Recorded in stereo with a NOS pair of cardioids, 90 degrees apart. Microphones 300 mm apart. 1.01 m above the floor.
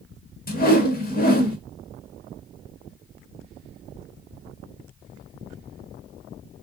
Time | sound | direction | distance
0.5 | a whoosh | 30° left | 1.1 m